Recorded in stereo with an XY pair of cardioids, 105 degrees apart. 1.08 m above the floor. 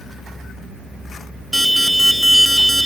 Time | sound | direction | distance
1.5 | an alarm | 5° right | 0.5 m